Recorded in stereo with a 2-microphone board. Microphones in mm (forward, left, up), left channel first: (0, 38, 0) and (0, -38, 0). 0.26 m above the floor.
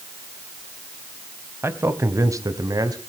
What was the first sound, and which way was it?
A man speaking, 35° right (ahead or behind).